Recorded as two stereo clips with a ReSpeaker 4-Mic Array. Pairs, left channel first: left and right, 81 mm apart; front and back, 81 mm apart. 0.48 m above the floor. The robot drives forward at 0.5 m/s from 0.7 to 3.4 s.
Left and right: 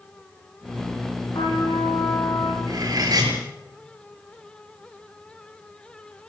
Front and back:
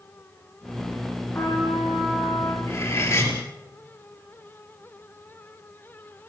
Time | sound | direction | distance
1.3 | a trumpet | 60° left | 8.5 m
2.6 | cutlery clinking | 50° right | 6 m